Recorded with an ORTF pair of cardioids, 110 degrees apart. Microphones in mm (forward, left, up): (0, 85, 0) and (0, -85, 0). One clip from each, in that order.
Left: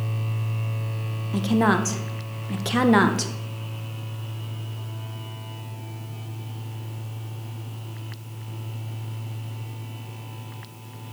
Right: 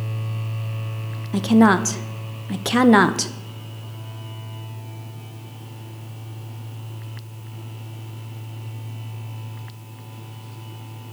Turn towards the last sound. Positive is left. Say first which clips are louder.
# right 5 dB
turn(degrees=-20)